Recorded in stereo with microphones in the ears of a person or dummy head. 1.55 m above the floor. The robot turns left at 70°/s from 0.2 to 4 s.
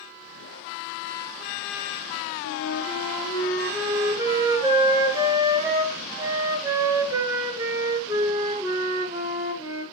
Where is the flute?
90° left, 1.5 m; by 9.8 s 20° right, 1.5 m.